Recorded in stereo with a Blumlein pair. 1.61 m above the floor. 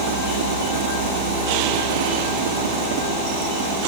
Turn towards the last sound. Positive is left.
turn(degrees=-55)